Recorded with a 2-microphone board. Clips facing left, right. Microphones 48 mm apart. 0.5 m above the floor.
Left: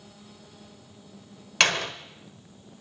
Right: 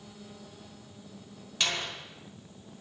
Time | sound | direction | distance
1.6 | a door slam | 65° left (ahead or behind) | 1.3 m